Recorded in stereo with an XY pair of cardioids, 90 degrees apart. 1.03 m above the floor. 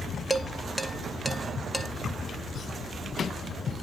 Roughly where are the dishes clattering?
Ahead.